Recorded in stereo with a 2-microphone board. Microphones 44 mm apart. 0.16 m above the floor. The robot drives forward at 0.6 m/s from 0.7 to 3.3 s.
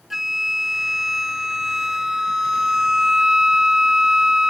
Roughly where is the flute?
Centre.